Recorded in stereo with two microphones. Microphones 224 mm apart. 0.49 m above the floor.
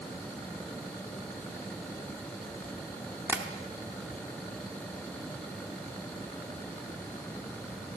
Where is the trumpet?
No trumpet in this recording.